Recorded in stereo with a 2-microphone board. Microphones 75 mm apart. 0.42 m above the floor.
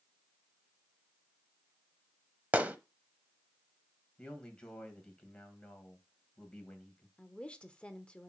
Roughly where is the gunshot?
Right.